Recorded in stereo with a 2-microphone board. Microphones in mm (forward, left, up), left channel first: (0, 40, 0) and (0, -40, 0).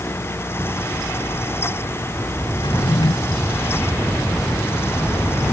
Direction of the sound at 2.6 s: 80° left.